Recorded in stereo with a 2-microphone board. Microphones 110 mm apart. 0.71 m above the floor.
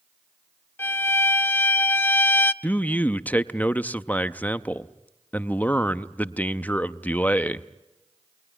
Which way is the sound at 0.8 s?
20° left (ahead or behind).